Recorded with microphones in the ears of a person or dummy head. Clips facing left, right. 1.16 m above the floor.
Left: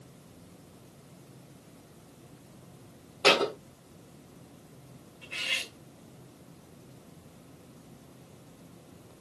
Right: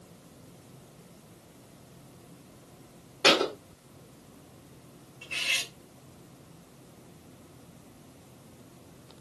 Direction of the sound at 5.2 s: 50° right (ahead or behind).